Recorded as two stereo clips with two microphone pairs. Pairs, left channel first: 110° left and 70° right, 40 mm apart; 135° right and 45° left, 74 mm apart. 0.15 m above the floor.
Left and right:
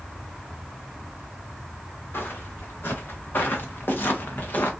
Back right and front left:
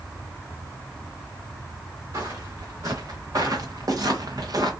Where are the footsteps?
85° left, 3 m; by 4.7 s 70° left, 1.6 m.